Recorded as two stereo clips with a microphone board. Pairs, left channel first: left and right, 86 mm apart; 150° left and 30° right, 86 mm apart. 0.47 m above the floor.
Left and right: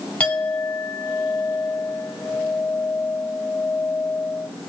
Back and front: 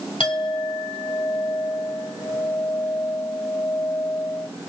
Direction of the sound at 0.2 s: 170° left.